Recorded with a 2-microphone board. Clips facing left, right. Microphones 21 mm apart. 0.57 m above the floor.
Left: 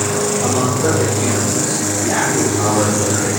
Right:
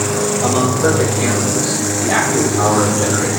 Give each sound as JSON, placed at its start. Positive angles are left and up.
{"t": 0.4, "sound": "a man speaking", "side_deg": -30, "distance_m": 2.5}